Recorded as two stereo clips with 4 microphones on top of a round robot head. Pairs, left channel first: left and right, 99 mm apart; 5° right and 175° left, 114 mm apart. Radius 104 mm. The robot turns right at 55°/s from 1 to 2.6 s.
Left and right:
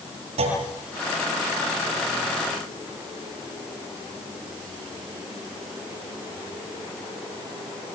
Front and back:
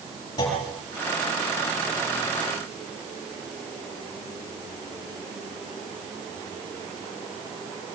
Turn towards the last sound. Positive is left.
turn(degrees=25)